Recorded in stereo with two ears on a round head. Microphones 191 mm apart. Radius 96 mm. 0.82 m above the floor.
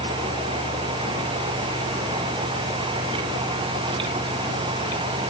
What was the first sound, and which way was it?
Only background noise.